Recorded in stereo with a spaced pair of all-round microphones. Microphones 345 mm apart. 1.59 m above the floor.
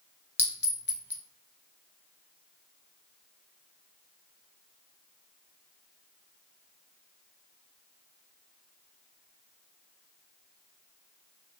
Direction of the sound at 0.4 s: 30° left (ahead or behind).